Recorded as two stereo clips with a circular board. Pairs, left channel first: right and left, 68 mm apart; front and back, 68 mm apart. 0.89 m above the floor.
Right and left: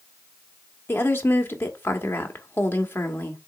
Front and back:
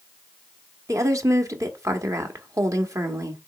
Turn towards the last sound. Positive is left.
turn(degrees=-145)